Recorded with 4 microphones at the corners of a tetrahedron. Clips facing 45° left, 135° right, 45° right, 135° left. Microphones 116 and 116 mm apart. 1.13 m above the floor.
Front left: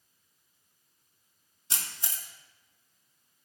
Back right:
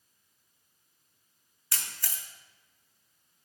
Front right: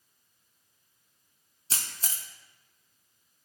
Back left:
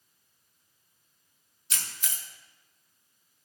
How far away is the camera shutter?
About 0.8 m.